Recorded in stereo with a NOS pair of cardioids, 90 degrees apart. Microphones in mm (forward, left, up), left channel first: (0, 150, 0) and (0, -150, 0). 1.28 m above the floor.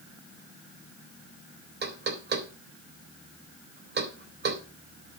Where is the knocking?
35° right, 3.5 m.